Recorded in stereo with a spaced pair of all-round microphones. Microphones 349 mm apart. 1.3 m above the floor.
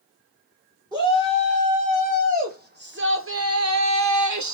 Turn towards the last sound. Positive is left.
turn(degrees=-55)  # may be behind; listen again after turning